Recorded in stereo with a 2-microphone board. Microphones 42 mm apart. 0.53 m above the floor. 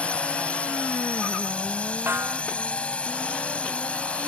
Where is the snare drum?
65° right (ahead or behind).